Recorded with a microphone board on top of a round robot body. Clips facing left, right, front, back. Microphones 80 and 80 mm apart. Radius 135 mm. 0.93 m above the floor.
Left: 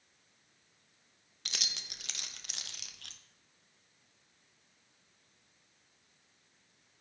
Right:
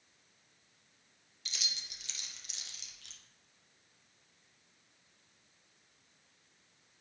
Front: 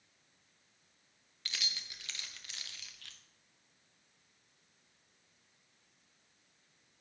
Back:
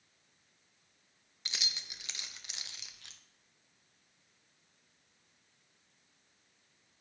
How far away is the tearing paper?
I don't hear tearing paper.